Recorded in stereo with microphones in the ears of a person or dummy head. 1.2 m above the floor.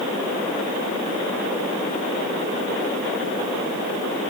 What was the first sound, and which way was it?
Only background noise.